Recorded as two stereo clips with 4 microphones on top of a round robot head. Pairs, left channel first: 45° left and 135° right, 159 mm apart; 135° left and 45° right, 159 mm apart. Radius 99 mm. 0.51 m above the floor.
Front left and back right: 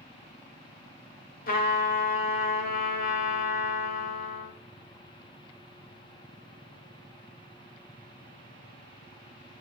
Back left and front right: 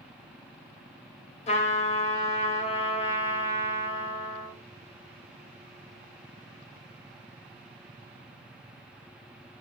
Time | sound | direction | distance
1.5 | a trumpet | 80° left | 0.7 m